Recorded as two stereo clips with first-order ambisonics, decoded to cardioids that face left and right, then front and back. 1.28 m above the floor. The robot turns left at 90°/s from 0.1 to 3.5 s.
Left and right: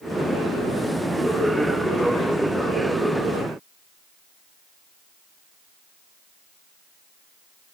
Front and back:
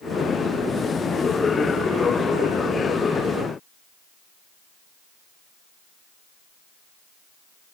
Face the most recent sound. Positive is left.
No sound to turn to.